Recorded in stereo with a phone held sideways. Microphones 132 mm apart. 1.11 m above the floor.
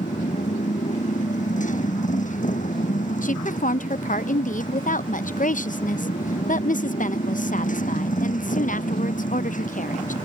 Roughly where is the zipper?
No zipper in this recording.